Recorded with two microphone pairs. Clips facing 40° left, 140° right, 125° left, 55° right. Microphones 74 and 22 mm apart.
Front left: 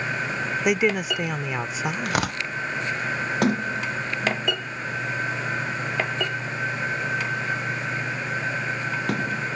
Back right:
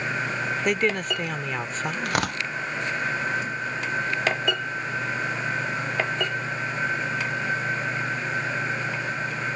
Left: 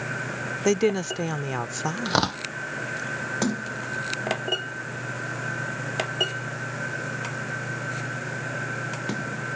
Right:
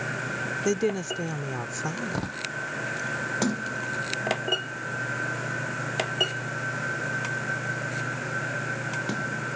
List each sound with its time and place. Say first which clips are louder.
0.7 s a woman speaking: front left 3 dB, left 5 dB; 110° left
2.0 s tearing paper: back right 1 dB, left 8 dB; 125° left
3.4 s a sliding door: front left 5 dB, even; 40° left